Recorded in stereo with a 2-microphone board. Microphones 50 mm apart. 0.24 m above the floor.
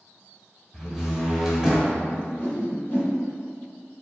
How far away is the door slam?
About 0.7 m.